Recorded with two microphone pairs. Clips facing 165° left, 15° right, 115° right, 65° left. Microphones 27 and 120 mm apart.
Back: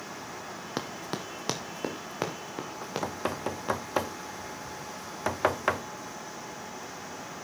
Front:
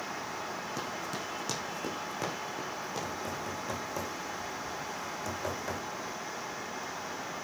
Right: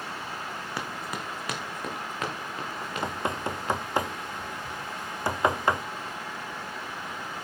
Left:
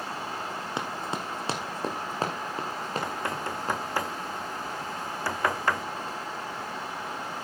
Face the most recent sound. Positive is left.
turn(degrees=175)